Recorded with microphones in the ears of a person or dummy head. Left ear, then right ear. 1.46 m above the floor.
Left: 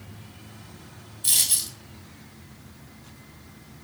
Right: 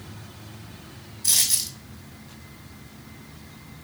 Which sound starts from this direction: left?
A dropped coin, at 1.2 s.